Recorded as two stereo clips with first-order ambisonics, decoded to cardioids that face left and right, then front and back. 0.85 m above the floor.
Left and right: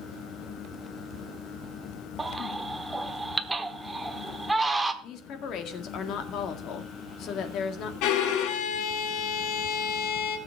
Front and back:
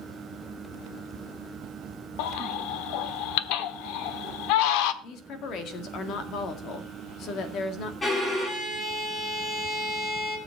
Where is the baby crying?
10° right, 1.0 m.